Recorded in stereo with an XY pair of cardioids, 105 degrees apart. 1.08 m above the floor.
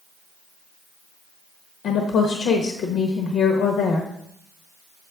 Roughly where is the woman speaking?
Left.